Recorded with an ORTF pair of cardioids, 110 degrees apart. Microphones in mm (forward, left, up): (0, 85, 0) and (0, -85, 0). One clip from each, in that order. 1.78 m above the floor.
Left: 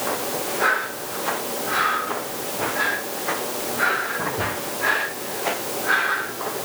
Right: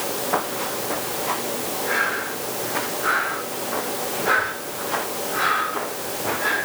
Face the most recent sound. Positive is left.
No sound to turn to.